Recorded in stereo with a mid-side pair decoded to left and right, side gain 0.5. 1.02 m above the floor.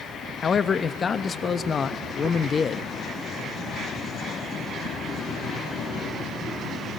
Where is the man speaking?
40° left, 0.8 m.